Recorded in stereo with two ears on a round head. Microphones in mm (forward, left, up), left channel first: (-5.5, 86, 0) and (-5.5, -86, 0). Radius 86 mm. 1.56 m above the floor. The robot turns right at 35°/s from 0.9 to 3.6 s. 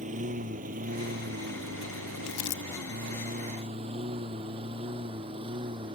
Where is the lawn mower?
40° right (ahead or behind); by 6.0 s 25° right (ahead or behind).